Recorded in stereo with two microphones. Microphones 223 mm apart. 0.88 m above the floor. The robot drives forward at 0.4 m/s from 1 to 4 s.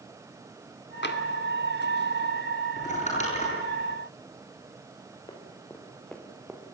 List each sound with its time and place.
1.0 s tapping: 50° left (ahead or behind), 1.9 m
2.8 s crumpling: 35° left (ahead or behind), 9.5 m
5.3 s running footsteps: 20° left (ahead or behind), 4 m; by 6.6 s 10° right (ahead or behind), 3 m